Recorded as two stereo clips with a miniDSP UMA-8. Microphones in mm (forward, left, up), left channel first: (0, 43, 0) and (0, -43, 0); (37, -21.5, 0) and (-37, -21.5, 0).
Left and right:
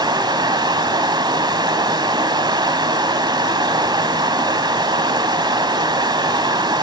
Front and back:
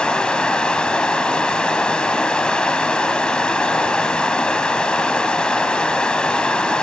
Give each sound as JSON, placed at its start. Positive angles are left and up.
{"t": 0.0, "sound": "running water", "azimuth_deg": -75, "distance_m": 1.2}